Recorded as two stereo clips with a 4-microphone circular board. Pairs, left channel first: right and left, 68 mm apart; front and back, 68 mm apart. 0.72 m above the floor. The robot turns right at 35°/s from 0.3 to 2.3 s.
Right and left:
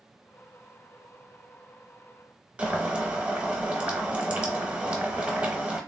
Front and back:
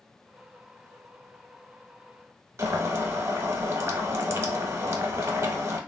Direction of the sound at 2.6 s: 155° left.